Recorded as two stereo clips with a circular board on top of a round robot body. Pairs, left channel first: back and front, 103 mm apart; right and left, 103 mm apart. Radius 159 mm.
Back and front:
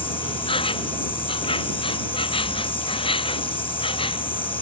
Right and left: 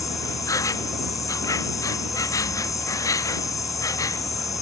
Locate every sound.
0.0 s an insect: 150° right